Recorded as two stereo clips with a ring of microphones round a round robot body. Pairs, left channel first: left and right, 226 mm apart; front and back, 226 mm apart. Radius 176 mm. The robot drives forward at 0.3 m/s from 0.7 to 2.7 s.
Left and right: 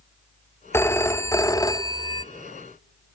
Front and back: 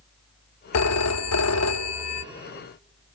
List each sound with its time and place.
0.7 s a phone ringing: 10° left, 1.1 m; by 2.2 s 15° left, 0.6 m